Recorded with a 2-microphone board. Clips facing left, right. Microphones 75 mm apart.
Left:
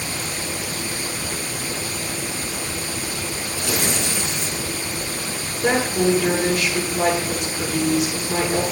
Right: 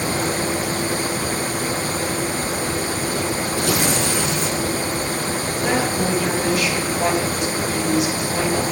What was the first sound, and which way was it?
Tearing paper, 55° right (ahead or behind).